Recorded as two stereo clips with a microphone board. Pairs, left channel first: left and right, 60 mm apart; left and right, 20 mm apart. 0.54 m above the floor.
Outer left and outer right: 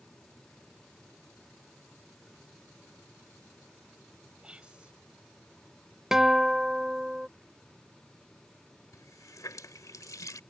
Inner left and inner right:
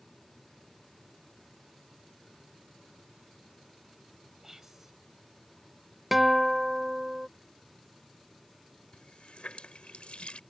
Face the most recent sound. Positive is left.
turn(degrees=70)  # may be behind; listen again after turning